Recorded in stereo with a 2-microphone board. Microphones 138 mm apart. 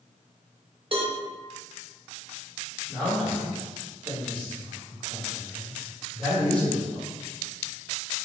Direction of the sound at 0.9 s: 45° right (ahead or behind).